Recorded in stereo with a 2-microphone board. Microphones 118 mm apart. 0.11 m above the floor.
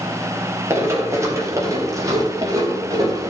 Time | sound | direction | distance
0.7 | running footsteps | 25° right (ahead or behind) | 4 m